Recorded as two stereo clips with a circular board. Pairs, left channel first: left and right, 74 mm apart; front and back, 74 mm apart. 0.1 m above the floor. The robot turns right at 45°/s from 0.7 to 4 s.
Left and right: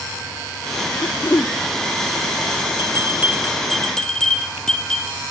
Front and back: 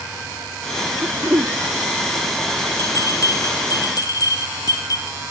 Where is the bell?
45° right, 3 m; by 5.2 s 10° left, 3 m.